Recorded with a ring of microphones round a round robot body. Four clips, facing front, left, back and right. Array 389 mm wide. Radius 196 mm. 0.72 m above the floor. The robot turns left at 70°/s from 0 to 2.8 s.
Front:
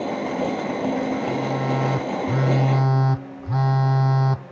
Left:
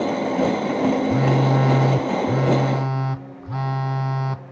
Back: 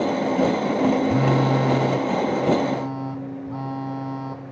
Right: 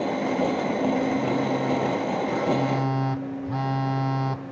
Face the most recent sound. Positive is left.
turn(degrees=10)